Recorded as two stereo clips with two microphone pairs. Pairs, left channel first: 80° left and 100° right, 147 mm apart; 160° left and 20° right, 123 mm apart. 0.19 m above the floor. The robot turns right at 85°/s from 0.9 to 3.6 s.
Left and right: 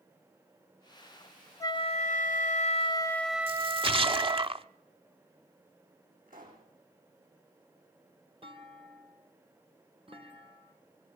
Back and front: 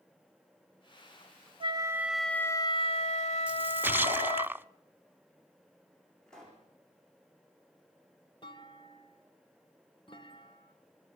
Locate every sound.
1.6 s a flute: 20° left, 0.6 m; by 4.5 s 170° right, 0.6 m
3.5 s a splash: 95° right, 0.6 m; by 4.7 s 85° right, 0.6 m
6.3 s a pop: 115° right, 7.5 m
8.4 s a clunk: 150° right, 1.7 m